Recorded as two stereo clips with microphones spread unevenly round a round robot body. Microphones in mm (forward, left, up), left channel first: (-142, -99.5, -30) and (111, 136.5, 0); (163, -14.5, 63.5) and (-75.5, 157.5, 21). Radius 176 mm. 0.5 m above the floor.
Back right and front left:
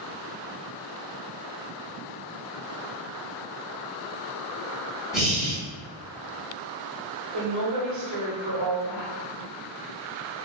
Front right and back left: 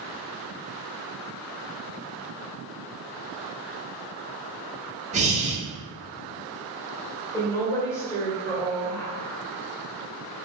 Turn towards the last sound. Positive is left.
turn(degrees=50)